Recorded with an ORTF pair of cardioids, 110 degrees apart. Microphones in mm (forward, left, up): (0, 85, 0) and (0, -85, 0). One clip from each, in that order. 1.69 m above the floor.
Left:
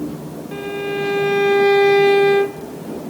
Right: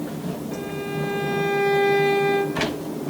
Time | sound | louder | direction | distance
0.5 | a violin | left 8 dB | 35° left | 0.8 m